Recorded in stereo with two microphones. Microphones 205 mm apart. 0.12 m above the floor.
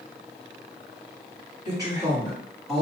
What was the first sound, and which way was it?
A woman speaking, 20° right (ahead or behind).